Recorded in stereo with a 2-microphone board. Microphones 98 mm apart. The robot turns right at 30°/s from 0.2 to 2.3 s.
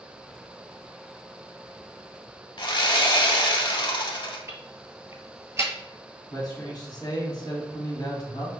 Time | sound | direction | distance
2.6 | sawing | 50° left (ahead or behind) | 0.6 m
4.5 | ticking | 30° right (ahead or behind) | 0.8 m
6.3 | a man speaking | 45° left (ahead or behind) | 1.5 m